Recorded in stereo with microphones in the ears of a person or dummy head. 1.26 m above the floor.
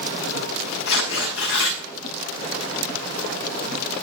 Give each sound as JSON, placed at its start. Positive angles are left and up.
{"t": 0.9, "sound": "tearing paper", "side_deg": 80, "distance_m": 6.0}